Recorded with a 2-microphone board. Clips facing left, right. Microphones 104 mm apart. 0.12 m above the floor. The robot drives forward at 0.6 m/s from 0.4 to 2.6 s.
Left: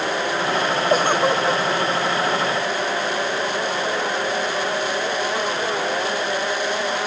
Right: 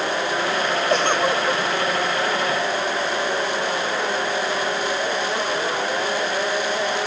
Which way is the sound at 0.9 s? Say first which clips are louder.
Left 2 dB; 5° left (ahead or behind).